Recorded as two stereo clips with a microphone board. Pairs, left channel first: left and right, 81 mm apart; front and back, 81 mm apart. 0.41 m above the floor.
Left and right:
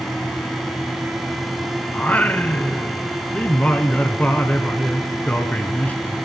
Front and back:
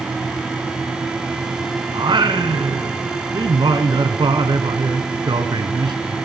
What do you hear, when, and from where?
1.9 s singing: 160° left, 1.0 m